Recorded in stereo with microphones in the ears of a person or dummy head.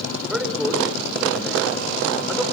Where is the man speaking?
Centre (ahead or behind), 4 m.